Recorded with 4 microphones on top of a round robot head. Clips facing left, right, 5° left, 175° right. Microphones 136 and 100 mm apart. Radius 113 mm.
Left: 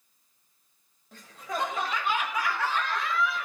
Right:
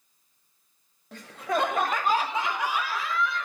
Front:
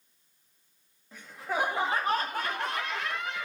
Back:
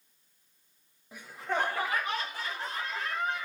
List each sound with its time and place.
1.1 s laughter: 100° right, 0.9 m; by 3.5 s 5° left, 1.2 m